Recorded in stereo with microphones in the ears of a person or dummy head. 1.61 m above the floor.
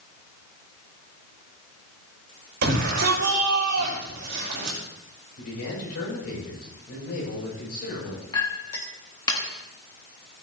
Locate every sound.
2.6 s a shout: 60° right (ahead or behind), 6 m
5.4 s a man speaking: 50° left (ahead or behind), 7 m
8.3 s a clink: 20° left (ahead or behind), 1.4 m